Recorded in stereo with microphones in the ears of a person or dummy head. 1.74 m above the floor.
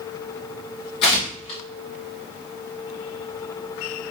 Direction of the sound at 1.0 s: 25° left (ahead or behind).